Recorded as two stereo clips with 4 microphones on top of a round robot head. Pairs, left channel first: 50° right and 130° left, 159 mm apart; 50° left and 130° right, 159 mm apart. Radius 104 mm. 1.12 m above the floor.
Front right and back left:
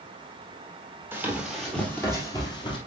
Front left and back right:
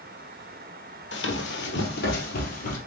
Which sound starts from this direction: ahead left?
Running footsteps, at 1.1 s.